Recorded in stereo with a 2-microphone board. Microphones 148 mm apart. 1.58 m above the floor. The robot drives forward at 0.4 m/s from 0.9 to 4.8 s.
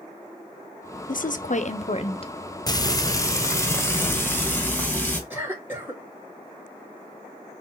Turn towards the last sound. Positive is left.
turn(degrees=-15)  # may be behind; listen again after turning